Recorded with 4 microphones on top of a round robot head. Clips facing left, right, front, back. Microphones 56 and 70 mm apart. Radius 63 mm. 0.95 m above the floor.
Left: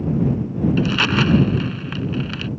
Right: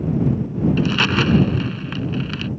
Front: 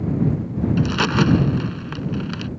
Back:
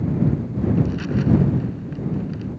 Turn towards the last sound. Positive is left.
turn(degrees=0)